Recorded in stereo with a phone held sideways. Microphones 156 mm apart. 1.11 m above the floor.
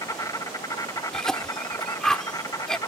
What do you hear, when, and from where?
0.0 s an insect: 20° left (ahead or behind)
1.1 s a cough: 5° left (ahead or behind)